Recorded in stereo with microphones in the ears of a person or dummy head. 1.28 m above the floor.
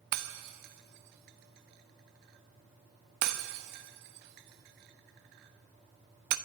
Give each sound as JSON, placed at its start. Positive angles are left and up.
{"t": 0.1, "sound": "breaking glass", "side_deg": -60, "distance_m": 0.9}